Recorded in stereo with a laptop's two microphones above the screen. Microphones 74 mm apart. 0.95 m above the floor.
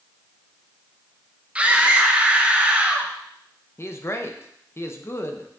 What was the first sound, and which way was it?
A scream, 15° right (ahead or behind).